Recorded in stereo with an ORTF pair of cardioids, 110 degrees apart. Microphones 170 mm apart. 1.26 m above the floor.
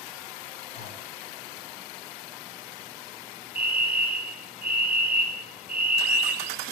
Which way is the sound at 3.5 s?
10° right.